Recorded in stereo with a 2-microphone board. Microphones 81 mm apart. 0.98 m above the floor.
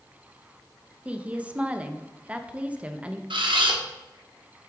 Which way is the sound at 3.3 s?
80° right.